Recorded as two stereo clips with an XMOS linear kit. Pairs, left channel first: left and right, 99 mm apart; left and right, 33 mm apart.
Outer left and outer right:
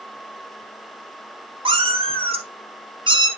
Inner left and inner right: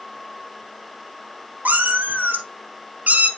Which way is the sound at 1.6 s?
70° right (ahead or behind).